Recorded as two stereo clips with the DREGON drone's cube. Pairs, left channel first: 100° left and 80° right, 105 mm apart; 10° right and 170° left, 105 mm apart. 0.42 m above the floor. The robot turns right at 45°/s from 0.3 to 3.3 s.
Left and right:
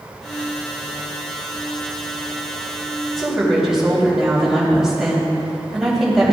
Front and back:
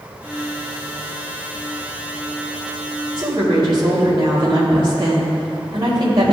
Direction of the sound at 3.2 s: 170° right.